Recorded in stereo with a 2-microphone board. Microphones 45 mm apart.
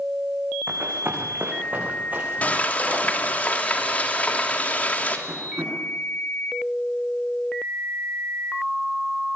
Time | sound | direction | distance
0.7 | running footsteps | 50° right (ahead or behind) | 7 m
2.4 | frying | 35° left (ahead or behind) | 3 m
5.3 | tapping | 60° right (ahead or behind) | 8 m